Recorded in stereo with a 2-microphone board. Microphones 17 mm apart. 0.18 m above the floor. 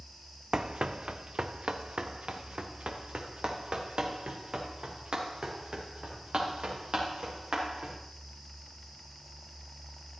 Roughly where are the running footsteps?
Right.